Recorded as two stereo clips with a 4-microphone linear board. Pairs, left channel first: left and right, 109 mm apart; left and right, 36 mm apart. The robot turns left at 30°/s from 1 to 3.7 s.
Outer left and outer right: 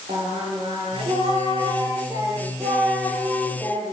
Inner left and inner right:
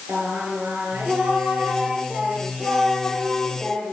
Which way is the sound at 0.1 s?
110° right.